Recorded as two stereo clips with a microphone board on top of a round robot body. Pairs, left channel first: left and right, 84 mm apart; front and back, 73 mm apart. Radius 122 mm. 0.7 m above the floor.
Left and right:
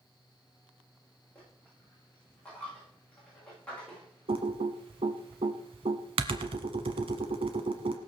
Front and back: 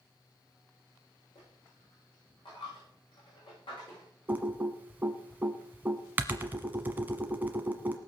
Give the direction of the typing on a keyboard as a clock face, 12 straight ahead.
4 o'clock.